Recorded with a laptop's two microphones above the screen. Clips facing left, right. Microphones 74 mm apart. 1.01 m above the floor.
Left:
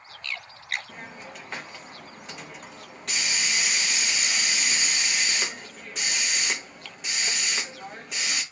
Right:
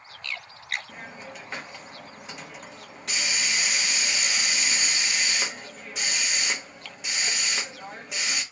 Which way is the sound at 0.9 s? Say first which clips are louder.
Right 1 dB; centre (ahead or behind).